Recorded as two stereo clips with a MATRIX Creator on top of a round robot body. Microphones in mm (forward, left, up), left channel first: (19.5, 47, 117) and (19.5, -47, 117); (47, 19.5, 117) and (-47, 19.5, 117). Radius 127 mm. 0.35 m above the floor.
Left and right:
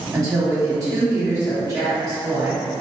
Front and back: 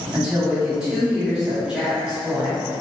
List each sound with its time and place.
0.1 s a woman speaking: 100° right, 1.6 m